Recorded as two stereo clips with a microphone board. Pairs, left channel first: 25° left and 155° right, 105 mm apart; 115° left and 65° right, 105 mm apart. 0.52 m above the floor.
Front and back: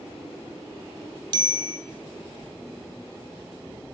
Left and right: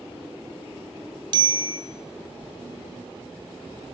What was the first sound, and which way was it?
A bicycle bell, 110° right.